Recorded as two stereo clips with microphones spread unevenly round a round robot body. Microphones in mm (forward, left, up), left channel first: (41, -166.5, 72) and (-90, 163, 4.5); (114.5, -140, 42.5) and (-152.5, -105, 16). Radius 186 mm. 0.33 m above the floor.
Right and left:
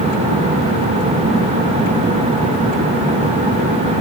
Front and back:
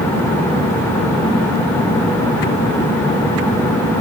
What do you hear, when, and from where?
Only background noise.